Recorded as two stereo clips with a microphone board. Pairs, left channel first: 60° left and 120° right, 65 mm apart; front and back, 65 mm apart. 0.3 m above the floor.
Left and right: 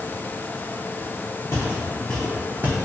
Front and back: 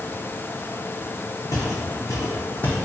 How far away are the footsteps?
About 0.9 m.